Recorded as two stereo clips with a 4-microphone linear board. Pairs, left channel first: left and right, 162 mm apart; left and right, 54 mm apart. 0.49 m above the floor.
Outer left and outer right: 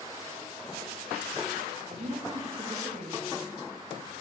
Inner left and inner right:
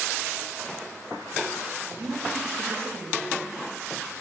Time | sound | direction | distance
1.9 | a woman speaking | 45° right (ahead or behind) | 3 m